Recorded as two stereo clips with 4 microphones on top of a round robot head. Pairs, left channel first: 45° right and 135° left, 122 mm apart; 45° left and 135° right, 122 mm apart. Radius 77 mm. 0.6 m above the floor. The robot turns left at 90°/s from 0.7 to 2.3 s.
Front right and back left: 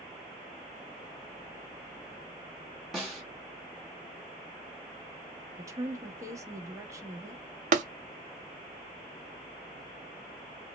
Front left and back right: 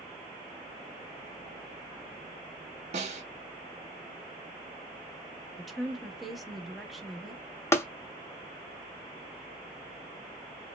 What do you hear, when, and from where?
2.9 s a snare drum: 140° right, 1.7 m
5.6 s a woman speaking: 140° left, 0.9 m
7.7 s tapping: 115° left, 0.7 m